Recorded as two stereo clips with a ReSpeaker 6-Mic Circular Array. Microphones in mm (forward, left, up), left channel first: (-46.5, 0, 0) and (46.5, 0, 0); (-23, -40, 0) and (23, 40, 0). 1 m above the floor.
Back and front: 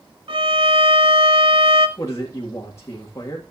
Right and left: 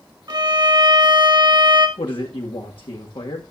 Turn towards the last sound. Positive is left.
turn(degrees=-125)